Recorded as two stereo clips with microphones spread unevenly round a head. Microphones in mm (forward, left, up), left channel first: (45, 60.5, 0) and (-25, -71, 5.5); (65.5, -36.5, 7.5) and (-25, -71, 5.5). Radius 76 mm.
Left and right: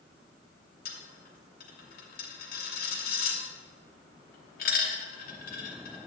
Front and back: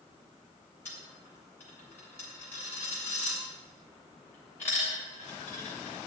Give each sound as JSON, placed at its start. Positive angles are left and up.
{"t": 0.8, "sound": "a dropped coin", "azimuth_deg": 100, "distance_m": 2.5}